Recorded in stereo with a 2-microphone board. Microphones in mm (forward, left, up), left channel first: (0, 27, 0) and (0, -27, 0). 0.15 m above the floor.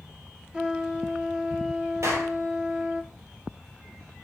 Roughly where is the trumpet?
Centre.